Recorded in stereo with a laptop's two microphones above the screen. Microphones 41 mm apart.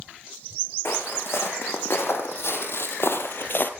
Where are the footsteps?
65° left (ahead or behind), 5 m; by 3.7 s 50° left (ahead or behind), 1.8 m.